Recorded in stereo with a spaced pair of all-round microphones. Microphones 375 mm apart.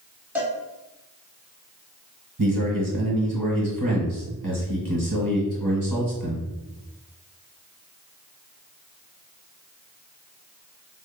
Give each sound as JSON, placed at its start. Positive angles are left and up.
{"t": 0.3, "sound": "a cowbell", "side_deg": -5, "distance_m": 1.4}
{"t": 2.4, "sound": "a man speaking", "side_deg": -55, "distance_m": 1.3}